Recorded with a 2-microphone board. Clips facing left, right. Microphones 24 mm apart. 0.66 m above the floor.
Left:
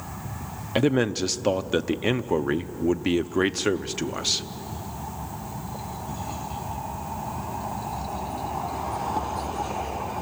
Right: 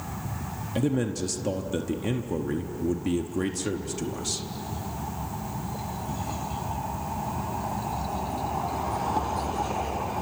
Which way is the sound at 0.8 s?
35° left (ahead or behind).